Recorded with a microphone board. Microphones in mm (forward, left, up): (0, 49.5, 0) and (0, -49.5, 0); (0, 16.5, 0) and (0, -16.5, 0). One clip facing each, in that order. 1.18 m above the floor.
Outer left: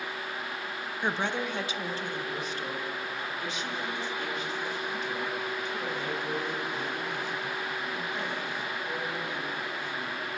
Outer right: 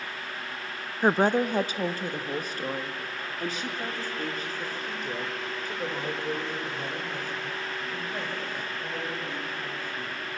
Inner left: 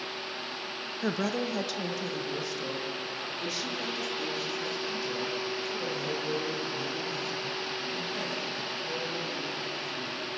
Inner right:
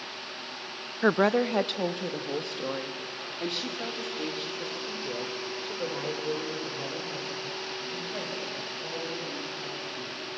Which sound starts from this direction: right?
A woman speaking, at 1.0 s.